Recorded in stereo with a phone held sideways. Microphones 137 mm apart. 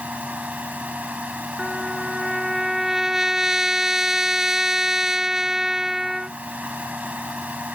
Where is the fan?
10° right (ahead or behind).